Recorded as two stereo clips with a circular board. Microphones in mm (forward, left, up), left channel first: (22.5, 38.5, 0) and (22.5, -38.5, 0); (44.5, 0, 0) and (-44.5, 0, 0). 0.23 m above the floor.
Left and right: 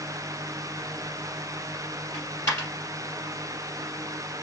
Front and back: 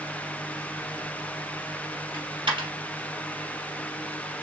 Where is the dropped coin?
145° left, 3 m.